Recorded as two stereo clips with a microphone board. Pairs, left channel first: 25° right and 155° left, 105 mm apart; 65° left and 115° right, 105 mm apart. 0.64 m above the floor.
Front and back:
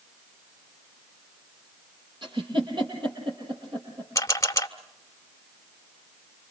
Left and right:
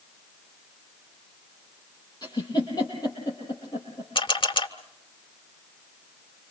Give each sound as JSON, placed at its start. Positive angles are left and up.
{"t": 2.2, "sound": "a giggle", "azimuth_deg": 115, "distance_m": 6.5}
{"t": 4.2, "sound": "a camera shutter", "azimuth_deg": 35, "distance_m": 1.3}